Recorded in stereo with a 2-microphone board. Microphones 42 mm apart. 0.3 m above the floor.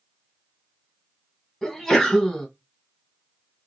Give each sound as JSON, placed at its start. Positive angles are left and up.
{"t": 1.6, "sound": "a sneeze", "side_deg": 0, "distance_m": 1.5}